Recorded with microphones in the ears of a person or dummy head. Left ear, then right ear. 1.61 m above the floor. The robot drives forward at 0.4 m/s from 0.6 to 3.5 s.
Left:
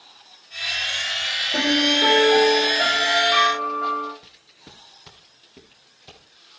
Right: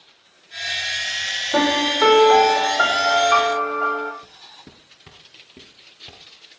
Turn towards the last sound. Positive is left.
turn(degrees=0)  # may be behind; listen again after turning